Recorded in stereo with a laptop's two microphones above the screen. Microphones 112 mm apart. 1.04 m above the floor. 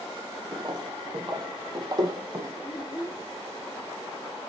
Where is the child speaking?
35° left (ahead or behind), 2 m.